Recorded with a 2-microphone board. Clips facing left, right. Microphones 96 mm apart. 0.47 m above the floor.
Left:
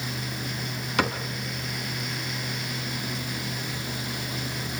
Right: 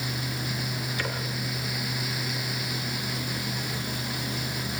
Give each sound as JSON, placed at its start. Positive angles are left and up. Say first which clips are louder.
{"t": 1.0, "sound": "a cupboard door", "louder": "left 9 dB", "side_deg": 75, "distance_m": 3.5}